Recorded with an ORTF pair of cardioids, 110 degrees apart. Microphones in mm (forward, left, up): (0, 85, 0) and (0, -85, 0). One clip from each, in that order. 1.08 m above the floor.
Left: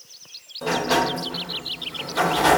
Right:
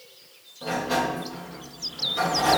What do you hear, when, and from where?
0.6 s a sliding door: 40° left, 1.2 m